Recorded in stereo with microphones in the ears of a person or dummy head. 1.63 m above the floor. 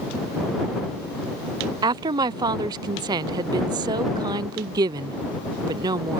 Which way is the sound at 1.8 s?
25° right (ahead or behind).